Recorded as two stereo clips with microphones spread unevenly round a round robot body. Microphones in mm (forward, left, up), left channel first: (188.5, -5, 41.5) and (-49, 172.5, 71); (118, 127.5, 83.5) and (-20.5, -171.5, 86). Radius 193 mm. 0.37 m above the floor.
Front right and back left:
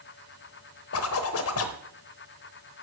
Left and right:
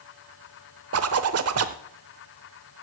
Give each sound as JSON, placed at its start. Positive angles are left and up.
{"t": 0.9, "sound": "a zipper", "azimuth_deg": -70, "distance_m": 0.8}